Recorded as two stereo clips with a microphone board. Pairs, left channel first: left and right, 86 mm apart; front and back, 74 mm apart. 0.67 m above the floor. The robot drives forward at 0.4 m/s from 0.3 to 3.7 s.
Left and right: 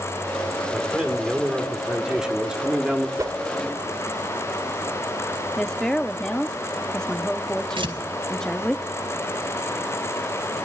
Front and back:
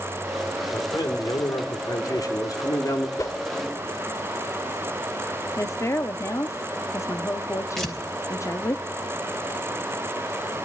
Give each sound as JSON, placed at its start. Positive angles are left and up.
{"t": 0.7, "sound": "a man speaking", "azimuth_deg": -10, "distance_m": 2.5}
{"t": 3.2, "sound": "a whoosh", "azimuth_deg": -40, "distance_m": 1.3}
{"t": 5.6, "sound": "a woman speaking", "azimuth_deg": 10, "distance_m": 1.0}
{"t": 7.8, "sound": "tearing paper", "azimuth_deg": -85, "distance_m": 3.5}